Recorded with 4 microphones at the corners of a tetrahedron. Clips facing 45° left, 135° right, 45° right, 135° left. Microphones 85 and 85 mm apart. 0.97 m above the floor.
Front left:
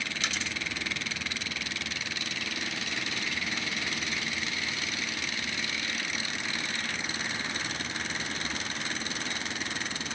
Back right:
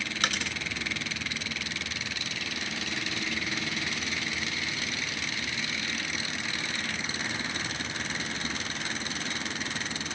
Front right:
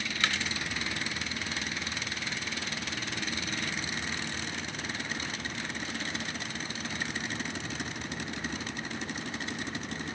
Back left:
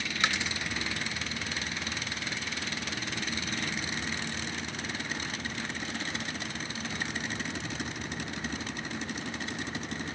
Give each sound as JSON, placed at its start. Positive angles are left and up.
{"t": 0.2, "sound": "a dropped coin", "azimuth_deg": -155, "distance_m": 0.7}